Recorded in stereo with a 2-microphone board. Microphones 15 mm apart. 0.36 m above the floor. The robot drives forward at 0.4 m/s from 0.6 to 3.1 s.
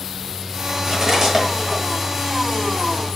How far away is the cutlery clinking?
About 1.1 m.